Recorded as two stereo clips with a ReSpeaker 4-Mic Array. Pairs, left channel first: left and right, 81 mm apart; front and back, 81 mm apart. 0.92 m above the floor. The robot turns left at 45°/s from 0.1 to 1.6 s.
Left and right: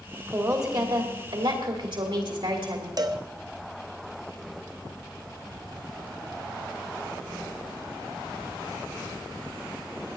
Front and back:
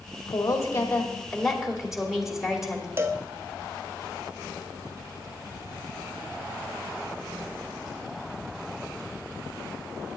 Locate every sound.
0.3 s a woman speaking: 35° right, 2.5 m; by 2.9 s 95° right, 2.5 m
3.0 s a cowbell: 125° right, 0.8 m